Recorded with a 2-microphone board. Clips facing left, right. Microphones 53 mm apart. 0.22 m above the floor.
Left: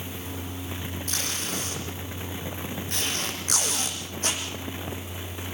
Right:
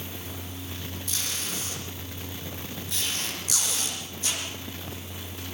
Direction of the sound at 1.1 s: 45° left (ahead or behind).